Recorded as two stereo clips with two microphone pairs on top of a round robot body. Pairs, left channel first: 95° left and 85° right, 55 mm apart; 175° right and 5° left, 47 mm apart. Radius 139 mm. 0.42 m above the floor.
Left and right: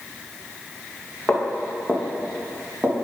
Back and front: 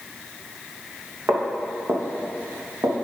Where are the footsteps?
30° left, 2.5 m; by 2.9 s 10° right, 3 m.